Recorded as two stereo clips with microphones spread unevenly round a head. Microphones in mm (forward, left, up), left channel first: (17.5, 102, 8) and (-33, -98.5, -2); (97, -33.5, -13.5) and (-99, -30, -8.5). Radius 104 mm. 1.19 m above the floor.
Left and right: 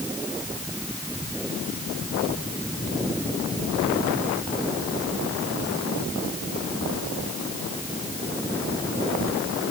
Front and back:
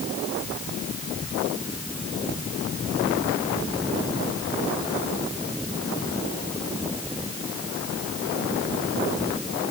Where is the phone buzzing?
I don't hear a phone buzzing.